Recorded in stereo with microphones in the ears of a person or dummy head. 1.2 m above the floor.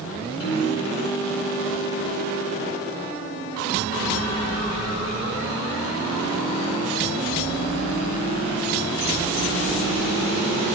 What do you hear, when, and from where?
0.4 s a piano: 65° left (ahead or behind), 5.5 m